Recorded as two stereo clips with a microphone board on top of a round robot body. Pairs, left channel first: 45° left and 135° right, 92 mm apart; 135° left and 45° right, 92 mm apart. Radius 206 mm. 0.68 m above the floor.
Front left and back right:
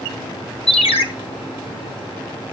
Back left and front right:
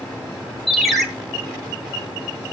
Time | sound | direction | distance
0.7 | a ringtone | 45° left | 1.5 m